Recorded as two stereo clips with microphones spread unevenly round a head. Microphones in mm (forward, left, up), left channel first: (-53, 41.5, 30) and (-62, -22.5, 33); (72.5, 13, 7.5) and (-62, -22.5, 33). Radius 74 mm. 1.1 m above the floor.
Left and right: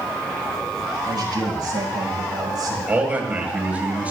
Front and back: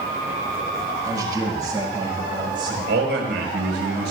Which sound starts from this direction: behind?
A man speaking, at 2.9 s.